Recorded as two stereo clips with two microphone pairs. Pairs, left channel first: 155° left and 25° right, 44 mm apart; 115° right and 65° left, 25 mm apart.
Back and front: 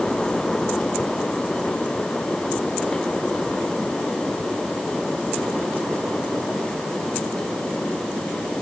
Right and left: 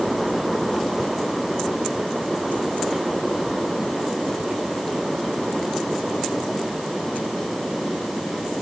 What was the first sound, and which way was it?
Only background noise.